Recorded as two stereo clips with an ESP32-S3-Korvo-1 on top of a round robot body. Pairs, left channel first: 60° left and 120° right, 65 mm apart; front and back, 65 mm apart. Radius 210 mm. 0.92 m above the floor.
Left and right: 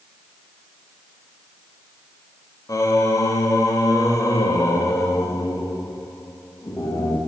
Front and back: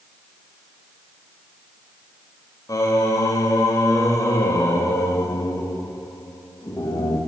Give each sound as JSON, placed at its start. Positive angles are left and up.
{"t": 2.7, "sound": "singing", "azimuth_deg": 30, "distance_m": 2.0}